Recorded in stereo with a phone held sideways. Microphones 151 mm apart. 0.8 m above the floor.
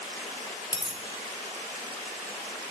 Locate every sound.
0.7 s a dropped coin: 30° left (ahead or behind), 1.5 m